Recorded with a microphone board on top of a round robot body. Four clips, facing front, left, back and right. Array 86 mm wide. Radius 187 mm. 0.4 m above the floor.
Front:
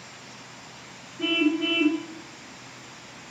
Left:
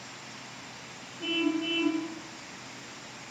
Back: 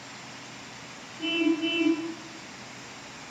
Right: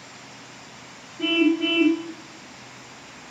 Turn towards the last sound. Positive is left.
turn(degrees=-55)